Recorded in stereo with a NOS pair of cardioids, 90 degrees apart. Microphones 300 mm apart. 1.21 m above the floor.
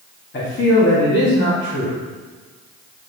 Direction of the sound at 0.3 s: 40° left.